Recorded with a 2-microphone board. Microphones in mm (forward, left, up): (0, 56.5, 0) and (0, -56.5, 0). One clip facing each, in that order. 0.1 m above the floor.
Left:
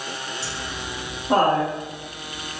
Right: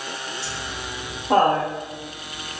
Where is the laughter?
35° left (ahead or behind), 1.2 m; by 2.6 s 10° left (ahead or behind), 1.5 m.